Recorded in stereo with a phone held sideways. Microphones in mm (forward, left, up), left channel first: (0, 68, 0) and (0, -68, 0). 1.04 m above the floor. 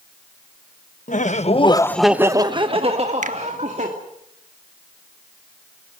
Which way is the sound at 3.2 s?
65° right (ahead or behind).